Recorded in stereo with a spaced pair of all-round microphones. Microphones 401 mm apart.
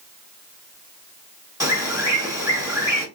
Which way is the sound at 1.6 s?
10° right (ahead or behind).